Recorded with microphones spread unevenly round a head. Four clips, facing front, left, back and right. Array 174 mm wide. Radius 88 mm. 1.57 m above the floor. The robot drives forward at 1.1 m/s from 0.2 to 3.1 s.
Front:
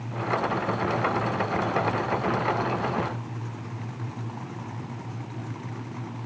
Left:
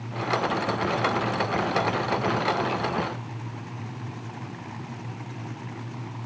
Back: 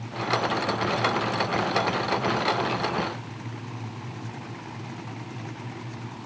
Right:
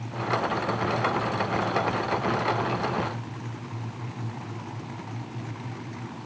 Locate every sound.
Only background noise.